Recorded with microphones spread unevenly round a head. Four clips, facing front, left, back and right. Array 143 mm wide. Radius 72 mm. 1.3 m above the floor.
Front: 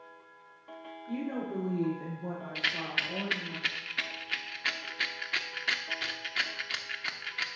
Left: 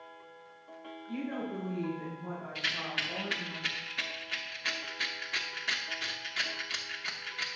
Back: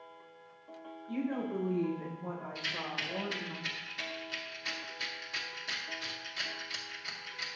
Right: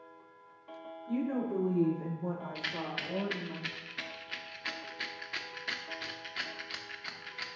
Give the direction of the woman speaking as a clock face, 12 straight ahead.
2 o'clock.